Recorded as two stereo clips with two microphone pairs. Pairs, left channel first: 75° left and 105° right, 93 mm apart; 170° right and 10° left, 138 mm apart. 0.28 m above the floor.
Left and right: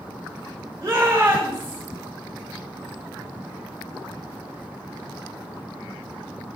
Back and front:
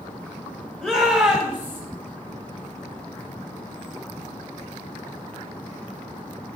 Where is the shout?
90° right, 1.7 m; by 1.8 s 45° right, 1.6 m.